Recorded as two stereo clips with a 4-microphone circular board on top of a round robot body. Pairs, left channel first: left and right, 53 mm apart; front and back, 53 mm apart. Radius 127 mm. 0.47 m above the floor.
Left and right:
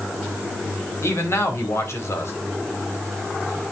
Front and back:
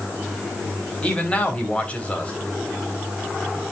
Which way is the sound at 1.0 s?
65° left.